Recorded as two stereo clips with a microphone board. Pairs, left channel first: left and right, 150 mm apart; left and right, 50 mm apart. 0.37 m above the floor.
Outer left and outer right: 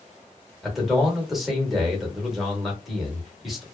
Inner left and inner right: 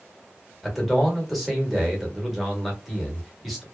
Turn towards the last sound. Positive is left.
turn(degrees=0)  # may be behind; listen again after turning